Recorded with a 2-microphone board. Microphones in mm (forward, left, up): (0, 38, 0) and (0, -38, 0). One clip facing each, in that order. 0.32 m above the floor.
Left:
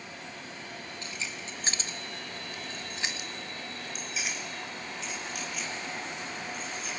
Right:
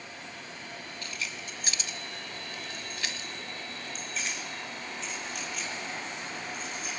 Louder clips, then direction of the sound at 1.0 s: Right 1 dB; 20° left (ahead or behind).